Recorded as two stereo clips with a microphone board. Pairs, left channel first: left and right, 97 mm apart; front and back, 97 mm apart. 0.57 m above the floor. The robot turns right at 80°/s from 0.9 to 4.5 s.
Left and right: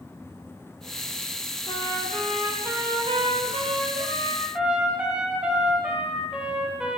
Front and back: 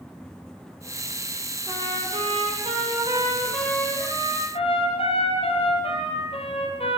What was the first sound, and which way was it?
A trumpet, 120° left.